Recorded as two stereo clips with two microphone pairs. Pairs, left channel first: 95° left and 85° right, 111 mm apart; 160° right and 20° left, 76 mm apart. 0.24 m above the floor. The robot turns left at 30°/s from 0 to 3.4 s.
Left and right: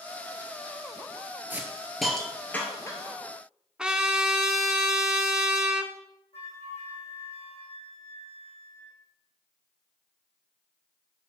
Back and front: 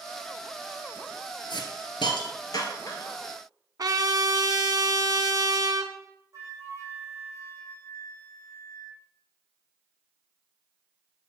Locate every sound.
1.5 s a hiss: 160° right, 1.7 m; by 3.2 s 150° left, 1.7 m
3.8 s a trumpet: 5° right, 0.9 m
6.3 s a flute: 70° left, 3.5 m